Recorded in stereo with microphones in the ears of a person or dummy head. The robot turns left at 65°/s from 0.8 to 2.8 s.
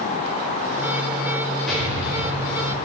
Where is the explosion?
175° left, 1.8 m; by 2.7 s 105° left, 1.8 m.